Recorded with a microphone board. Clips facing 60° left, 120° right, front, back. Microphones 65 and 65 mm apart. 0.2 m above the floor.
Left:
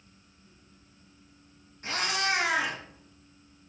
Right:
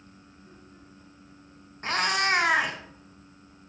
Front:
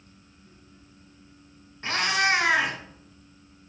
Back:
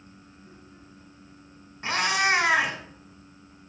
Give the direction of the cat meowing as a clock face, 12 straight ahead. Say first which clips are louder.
Right 4 dB, even; 4 o'clock.